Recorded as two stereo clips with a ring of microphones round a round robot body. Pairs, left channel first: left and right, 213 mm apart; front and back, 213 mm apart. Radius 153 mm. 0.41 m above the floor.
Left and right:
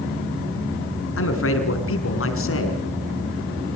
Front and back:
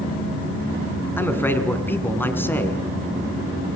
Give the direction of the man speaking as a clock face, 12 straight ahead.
9 o'clock.